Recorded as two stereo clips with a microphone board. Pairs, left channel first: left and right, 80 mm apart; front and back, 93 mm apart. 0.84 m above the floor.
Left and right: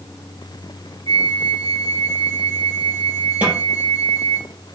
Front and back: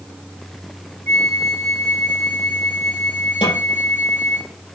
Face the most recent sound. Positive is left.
turn(degrees=-20)